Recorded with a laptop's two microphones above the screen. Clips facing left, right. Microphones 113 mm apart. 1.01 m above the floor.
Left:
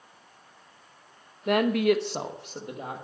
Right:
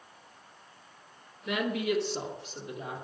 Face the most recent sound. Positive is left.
turn(degrees=50)  # may be behind; listen again after turning